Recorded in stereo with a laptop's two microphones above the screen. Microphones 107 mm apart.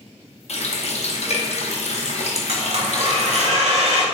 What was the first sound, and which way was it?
A running tap, 70° left (ahead or behind).